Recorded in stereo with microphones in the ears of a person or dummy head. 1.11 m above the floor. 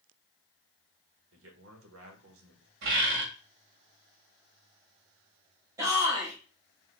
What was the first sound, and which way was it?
A man speaking, 75° right (ahead or behind).